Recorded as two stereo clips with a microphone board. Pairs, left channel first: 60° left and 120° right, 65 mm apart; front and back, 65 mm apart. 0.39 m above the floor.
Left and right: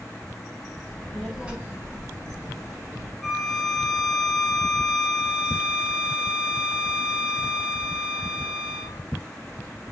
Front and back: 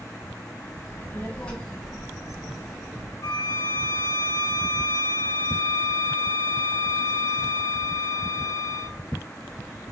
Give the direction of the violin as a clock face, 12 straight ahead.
1 o'clock.